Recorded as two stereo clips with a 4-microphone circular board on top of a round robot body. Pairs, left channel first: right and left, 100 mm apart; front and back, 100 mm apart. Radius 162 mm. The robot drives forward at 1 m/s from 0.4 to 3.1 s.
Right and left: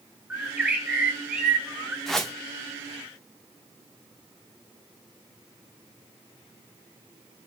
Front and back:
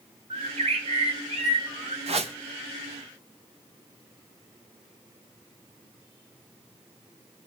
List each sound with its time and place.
0.3 s a bird: 170° left, 3.5 m
2.1 s a whoosh: 175° right, 2 m; by 2.3 s straight behind, 2.5 m